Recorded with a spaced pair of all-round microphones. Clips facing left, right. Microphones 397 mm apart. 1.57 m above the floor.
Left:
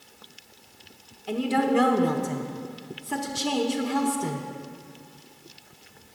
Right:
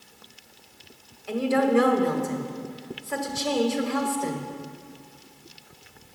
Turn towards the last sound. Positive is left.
turn(degrees=50)  # may be behind; listen again after turning